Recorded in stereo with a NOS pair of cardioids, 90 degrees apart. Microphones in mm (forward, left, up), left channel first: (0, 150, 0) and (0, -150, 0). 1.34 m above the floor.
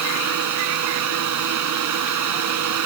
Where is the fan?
70° right.